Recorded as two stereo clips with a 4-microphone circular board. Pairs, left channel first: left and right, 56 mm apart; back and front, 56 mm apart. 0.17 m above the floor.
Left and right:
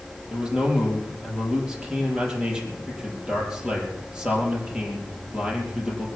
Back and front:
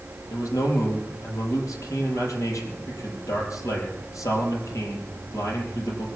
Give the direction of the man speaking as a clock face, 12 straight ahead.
5 o'clock.